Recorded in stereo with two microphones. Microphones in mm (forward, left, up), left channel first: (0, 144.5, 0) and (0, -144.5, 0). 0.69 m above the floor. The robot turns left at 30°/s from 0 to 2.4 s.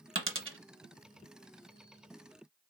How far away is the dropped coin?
About 0.6 m.